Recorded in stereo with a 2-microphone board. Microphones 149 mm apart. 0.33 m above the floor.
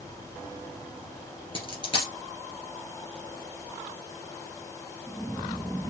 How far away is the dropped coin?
About 2.5 m.